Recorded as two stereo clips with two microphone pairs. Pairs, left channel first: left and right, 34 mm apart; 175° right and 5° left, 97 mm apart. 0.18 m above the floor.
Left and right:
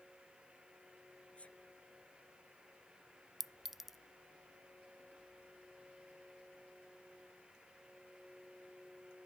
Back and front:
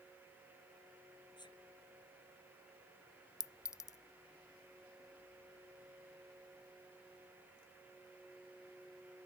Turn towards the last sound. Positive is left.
turn(degrees=-165)